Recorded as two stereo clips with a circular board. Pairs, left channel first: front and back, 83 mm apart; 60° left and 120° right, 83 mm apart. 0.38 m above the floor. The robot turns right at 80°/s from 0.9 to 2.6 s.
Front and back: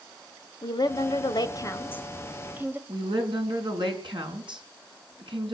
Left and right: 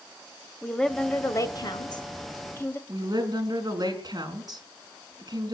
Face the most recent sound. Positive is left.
turn(degrees=-160)